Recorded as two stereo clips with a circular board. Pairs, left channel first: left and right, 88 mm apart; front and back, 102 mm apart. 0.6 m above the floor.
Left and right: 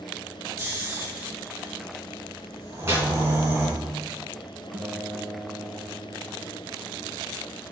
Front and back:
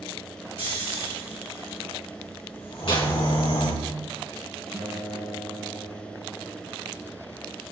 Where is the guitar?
85° right, 2.5 m.